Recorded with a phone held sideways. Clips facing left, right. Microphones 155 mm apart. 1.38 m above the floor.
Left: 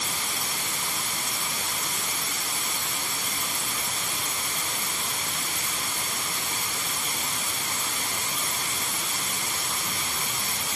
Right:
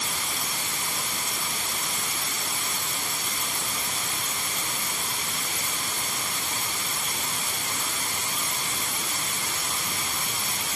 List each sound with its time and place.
Only background noise.